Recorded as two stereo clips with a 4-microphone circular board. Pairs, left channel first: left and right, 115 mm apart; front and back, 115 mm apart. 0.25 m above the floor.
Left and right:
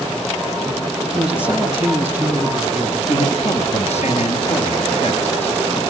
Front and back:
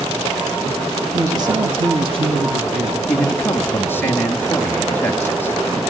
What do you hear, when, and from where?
1.1 s a man speaking: 165° right, 1.2 m; by 3.0 s 160° right, 2.5 m
3.1 s a man speaking: 75° left, 4 m